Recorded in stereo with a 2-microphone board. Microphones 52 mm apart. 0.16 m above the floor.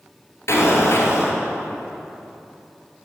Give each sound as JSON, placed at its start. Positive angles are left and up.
{"t": 0.5, "sound": "an explosion", "side_deg": 65, "distance_m": 2.5}